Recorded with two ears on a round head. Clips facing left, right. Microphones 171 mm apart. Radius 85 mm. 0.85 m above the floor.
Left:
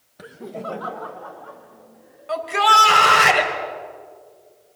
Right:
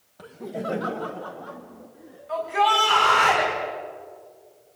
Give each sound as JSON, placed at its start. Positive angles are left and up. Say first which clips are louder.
{"t": 0.2, "sound": "laughter", "louder": "right 1 dB", "side_deg": 20, "distance_m": 0.9}
{"t": 2.3, "sound": "a shout", "louder": "left 2 dB", "side_deg": 80, "distance_m": 4.5}